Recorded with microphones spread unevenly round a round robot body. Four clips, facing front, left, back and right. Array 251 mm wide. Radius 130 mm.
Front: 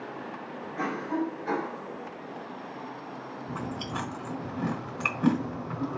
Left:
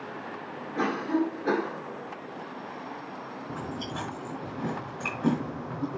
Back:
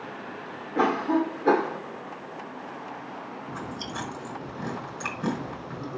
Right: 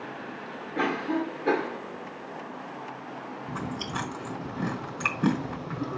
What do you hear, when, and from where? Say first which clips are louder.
0.8 s a cough: left 1 dB, back 7 dB; 170° right, 2.5 m
3.5 s chewing: right 2 dB, front 3 dB; 70° right, 3.5 m